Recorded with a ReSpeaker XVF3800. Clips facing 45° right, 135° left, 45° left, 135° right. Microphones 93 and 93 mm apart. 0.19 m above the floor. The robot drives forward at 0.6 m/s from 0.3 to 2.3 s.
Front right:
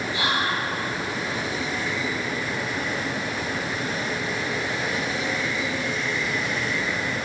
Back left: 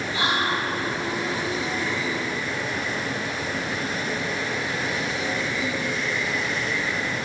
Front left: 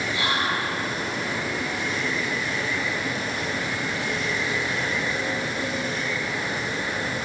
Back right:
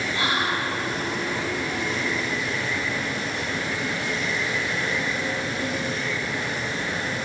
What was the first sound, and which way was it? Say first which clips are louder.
Whispering: back left 1 dB, back right 1 dB; 170° right.